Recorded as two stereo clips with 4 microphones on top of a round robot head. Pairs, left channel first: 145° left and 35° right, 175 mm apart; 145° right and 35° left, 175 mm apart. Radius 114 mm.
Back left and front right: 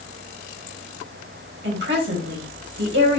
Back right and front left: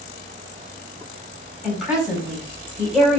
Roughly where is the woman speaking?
Ahead right.